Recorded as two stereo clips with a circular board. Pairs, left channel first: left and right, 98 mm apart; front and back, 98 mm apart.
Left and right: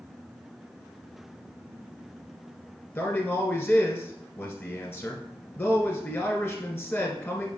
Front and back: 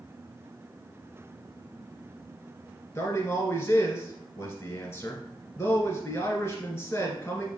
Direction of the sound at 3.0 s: 40° left.